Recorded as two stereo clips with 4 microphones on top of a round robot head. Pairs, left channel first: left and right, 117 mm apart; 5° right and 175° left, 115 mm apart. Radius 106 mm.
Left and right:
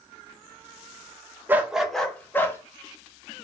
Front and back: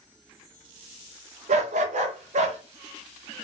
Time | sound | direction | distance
1.5 | a dog barking | 160° right | 0.7 m